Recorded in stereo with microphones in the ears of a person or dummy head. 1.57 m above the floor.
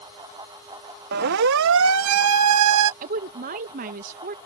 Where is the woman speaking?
45° right (ahead or behind).